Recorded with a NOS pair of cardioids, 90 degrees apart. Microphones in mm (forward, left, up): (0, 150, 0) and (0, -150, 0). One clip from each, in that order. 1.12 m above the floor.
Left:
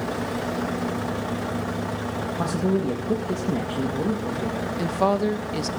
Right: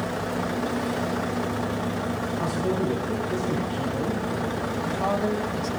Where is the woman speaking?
60° left, 0.9 m.